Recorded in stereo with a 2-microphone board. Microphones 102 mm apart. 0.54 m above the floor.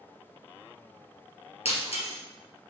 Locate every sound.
1.6 s breaking glass: 85° left, 3 m